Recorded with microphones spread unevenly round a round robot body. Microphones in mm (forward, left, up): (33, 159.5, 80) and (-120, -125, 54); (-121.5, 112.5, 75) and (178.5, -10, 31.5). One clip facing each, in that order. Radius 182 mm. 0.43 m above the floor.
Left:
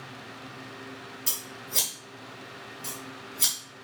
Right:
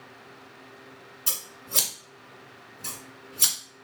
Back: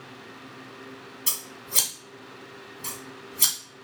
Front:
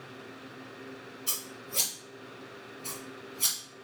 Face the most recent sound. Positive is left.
turn(degrees=160)